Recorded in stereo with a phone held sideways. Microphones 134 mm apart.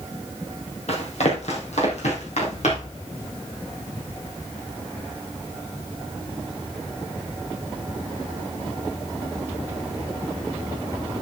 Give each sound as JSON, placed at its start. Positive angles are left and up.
{"t": 0.9, "sound": "running footsteps", "side_deg": 60, "distance_m": 3.0}